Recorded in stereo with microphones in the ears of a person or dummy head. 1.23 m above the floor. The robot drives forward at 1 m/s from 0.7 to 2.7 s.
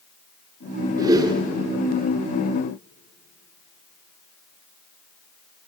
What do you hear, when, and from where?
1.0 s a whoosh: 20° right (ahead or behind), 3 m; by 1.4 s 25° right (ahead or behind), 2.5 m